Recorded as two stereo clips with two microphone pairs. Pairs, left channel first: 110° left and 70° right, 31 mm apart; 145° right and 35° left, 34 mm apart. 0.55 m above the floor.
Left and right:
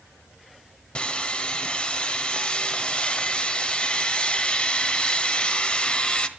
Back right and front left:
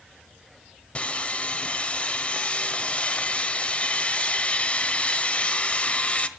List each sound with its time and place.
0.9 s sawing: 165° left, 1.3 m